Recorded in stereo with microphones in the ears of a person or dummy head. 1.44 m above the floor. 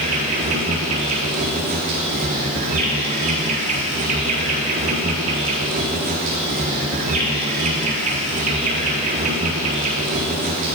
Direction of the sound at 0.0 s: 30° right (ahead or behind).